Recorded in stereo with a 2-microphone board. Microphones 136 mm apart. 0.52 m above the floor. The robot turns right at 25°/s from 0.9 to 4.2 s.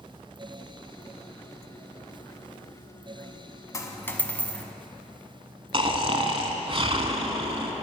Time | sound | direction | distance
3.7 | a dropped coin | 25° left (ahead or behind) | 0.8 m
5.7 | snoring | 40° right (ahead or behind) | 0.8 m